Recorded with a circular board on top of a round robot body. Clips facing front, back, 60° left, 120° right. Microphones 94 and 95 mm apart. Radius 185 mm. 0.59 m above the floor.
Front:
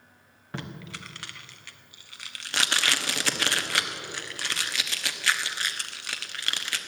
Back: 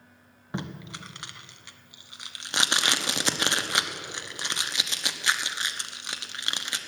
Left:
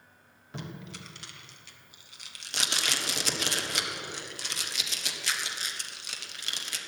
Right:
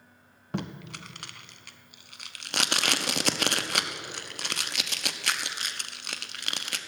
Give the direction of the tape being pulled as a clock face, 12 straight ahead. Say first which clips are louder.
Back 2 dB, right 6 dB; 4 o'clock.